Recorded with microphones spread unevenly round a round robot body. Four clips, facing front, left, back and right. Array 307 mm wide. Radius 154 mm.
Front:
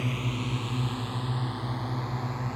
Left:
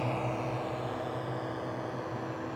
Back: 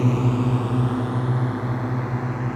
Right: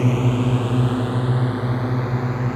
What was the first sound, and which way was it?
A drone, 135° right.